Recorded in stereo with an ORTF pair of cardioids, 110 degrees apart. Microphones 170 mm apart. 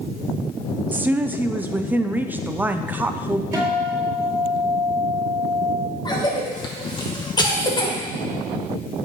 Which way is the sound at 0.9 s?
10° right.